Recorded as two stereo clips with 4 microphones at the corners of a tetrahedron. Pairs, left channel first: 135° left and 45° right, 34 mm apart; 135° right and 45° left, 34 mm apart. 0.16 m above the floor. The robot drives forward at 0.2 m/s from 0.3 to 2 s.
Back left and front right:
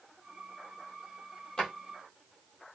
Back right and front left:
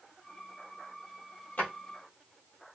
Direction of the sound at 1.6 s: 155° right.